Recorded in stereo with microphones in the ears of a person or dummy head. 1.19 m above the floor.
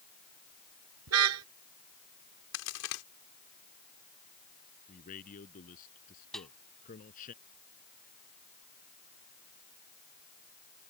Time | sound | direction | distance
1.1 | a car horn | 85° right | ?
2.5 | a crack | 70° left (ahead or behind) | ?
4.9 | a man speaking | 40° left (ahead or behind) | ?
6.3 | a snare drum | centre (ahead or behind) | ?